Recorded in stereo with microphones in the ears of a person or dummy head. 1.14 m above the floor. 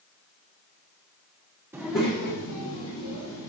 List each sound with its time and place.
1.7 s a child speaking: 15° right (ahead or behind), 0.6 m; by 3.5 s 80° left, 2 m